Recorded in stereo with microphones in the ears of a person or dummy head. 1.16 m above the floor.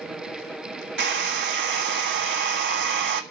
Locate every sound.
1.0 s a hair dryer: 55° right (ahead or behind), 1.4 m